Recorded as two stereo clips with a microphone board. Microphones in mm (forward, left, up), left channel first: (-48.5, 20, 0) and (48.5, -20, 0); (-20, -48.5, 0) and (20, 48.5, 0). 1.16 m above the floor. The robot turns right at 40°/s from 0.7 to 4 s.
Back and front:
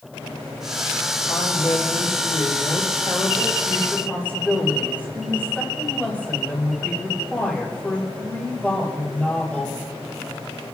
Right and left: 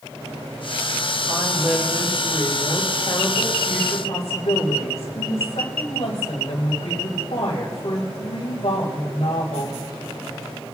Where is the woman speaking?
125° left, 3.5 m; by 9.8 s 125° right, 3.5 m.